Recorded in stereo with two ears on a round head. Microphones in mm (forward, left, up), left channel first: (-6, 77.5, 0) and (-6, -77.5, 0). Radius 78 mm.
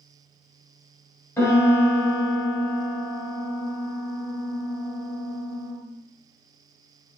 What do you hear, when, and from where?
1.4 s a piano: 20° left (ahead or behind), 0.8 m